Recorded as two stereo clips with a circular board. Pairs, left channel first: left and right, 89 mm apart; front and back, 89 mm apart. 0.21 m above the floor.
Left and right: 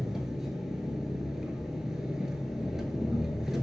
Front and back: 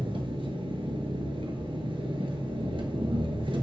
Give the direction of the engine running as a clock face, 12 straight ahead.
6 o'clock.